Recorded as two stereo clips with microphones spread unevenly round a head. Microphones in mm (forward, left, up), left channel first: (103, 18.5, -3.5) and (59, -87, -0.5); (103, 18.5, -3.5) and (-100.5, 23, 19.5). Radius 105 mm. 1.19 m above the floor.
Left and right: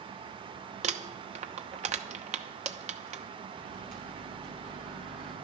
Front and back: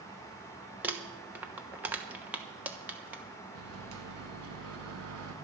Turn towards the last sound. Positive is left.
turn(degrees=-150)